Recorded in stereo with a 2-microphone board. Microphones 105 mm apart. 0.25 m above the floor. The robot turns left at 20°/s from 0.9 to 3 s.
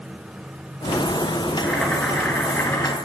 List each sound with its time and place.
1.6 s boiling: centre (ahead or behind), 4 m; by 3.0 s 25° left (ahead or behind), 4 m